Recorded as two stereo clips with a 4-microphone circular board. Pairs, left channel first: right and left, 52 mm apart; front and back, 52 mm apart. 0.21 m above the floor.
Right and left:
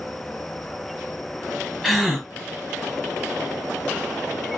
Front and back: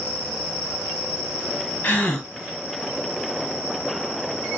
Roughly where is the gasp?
Ahead.